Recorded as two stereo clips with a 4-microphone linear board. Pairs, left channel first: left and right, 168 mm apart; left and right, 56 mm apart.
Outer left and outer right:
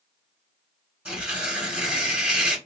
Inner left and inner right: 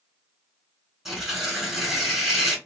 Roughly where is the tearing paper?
Centre.